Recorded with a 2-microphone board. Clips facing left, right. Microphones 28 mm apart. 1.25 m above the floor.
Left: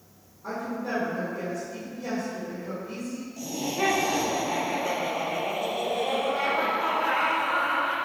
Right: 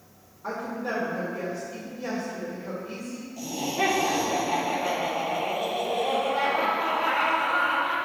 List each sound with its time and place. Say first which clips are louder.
0.4 s a woman speaking: right 1 dB; 25° right (ahead or behind), 3.5 m
3.4 s laughter: right 2 dB; 5° right (ahead or behind), 2 m